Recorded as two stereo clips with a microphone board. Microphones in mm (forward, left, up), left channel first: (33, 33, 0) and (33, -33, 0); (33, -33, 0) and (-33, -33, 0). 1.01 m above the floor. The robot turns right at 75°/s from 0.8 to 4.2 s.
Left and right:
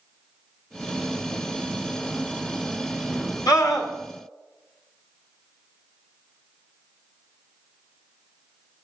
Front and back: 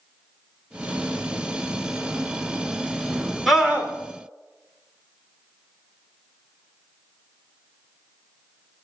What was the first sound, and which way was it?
A scream, 90° left.